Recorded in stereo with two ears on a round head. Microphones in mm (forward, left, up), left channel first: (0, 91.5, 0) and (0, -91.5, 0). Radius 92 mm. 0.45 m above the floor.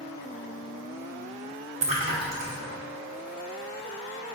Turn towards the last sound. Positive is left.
turn(degrees=-35)  # may be behind; listen again after turning